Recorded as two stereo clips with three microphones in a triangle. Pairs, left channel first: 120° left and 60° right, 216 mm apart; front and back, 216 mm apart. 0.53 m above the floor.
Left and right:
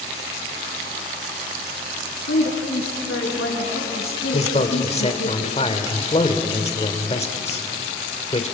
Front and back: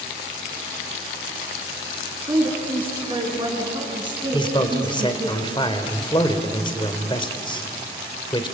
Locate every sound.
2.3 s a woman speaking: 115° left, 7.5 m; by 5.3 s 110° left, 5.5 m
4.3 s a man speaking: 65° left, 2 m